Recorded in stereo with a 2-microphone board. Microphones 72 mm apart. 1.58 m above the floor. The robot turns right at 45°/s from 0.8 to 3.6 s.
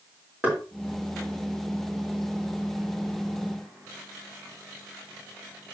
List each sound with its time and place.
0.4 s knocking: 20° right (ahead or behind), 3.5 m